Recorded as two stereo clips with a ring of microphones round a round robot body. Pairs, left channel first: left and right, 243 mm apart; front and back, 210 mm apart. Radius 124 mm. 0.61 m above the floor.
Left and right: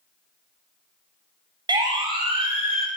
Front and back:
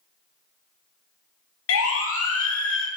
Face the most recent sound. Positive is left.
turn(degrees=-25)